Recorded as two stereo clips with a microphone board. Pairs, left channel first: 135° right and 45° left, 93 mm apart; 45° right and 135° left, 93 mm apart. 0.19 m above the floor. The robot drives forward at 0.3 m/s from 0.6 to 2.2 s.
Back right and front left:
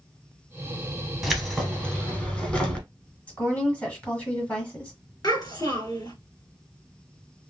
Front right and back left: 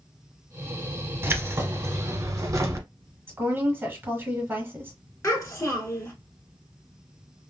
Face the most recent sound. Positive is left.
turn(degrees=-100)